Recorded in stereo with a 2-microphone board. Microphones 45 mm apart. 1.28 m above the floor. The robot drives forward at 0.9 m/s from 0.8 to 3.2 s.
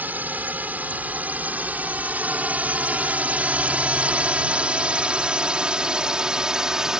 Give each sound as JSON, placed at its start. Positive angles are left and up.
{"t": 0.0, "sound": "a drone", "side_deg": -40}